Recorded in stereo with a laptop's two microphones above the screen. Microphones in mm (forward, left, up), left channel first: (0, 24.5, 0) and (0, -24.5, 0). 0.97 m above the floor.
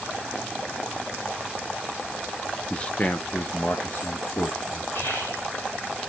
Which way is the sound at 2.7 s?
20° left (ahead or behind).